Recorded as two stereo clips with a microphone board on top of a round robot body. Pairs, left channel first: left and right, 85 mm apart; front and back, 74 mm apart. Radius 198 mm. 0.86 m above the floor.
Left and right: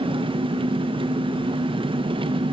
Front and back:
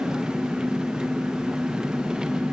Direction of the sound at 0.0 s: 100° right.